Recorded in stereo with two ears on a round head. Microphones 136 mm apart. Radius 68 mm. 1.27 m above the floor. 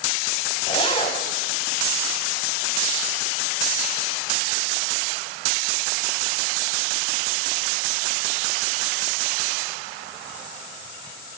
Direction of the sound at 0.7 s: 35° left (ahead or behind).